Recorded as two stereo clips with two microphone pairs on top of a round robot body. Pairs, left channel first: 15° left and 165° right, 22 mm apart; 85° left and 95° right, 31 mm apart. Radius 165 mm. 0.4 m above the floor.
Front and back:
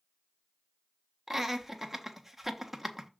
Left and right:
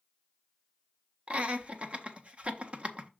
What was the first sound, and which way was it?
Laughter, 80° right.